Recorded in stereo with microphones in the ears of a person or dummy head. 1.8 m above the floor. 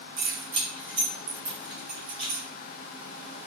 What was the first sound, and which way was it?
Keys jangling, 25° right (ahead or behind).